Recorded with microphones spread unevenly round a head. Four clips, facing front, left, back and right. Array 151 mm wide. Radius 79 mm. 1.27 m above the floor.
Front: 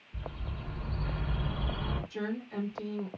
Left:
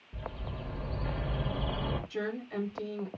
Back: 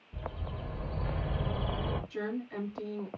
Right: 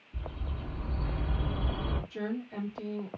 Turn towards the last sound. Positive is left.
turn(degrees=90)